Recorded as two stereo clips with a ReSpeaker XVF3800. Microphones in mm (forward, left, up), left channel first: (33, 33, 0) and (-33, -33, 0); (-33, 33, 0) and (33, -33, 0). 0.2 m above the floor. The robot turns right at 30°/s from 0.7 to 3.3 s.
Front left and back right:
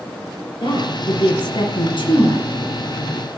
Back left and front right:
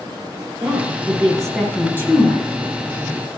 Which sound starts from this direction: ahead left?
A woman speaking, at 0.6 s.